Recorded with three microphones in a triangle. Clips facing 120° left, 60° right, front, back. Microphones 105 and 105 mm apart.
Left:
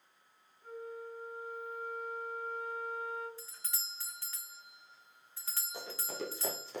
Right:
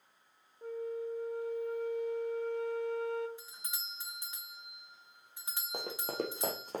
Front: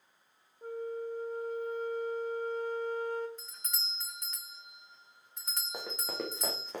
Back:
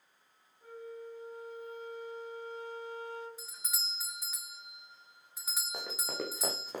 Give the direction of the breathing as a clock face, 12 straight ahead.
I don't hear breathing.